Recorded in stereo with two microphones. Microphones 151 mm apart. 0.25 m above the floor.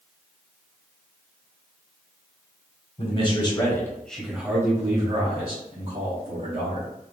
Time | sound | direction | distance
3.0 | a man speaking | 40° left (ahead or behind) | 1.4 m